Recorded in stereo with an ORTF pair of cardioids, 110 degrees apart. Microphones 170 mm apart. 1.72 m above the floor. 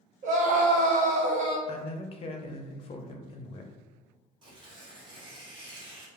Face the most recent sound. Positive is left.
turn(degrees=-30)